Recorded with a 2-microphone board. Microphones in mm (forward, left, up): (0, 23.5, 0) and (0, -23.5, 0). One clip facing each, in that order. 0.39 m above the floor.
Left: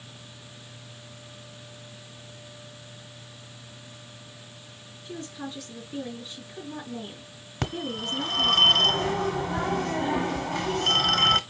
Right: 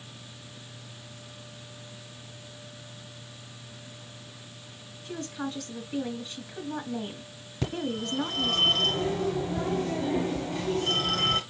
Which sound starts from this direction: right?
A woman speaking, at 5.0 s.